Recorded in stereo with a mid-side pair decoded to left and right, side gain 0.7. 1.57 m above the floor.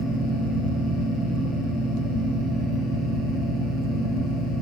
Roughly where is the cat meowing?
No cat meowing in this recording.